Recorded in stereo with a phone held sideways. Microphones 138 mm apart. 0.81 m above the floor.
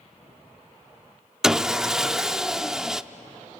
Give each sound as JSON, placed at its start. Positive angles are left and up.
{"t": 1.4, "sound": "sawing", "side_deg": -5, "distance_m": 0.5}